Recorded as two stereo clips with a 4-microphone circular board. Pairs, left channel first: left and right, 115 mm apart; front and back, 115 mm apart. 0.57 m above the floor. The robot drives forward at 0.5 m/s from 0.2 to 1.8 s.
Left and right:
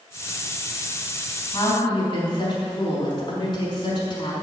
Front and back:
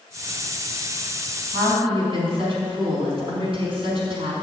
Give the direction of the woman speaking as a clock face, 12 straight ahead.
7 o'clock.